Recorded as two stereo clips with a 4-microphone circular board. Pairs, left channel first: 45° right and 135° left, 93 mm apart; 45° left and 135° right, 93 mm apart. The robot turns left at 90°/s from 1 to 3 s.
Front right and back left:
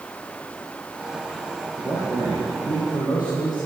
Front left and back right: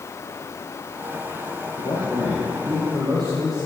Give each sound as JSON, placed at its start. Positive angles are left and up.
{"t": 1.8, "sound": "a man speaking", "azimuth_deg": 15, "distance_m": 8.5}